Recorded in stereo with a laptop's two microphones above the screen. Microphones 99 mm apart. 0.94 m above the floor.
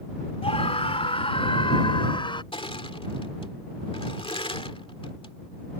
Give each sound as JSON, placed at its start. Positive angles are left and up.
{"t": 0.4, "sound": "a scream", "side_deg": 75}
{"t": 2.5, "sound": "crushing", "side_deg": 65}